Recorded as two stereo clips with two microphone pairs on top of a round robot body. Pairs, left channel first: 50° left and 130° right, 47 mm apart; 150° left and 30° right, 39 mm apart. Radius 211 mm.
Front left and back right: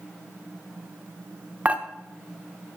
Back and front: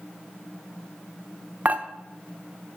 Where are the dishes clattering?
70° right, 1.0 m.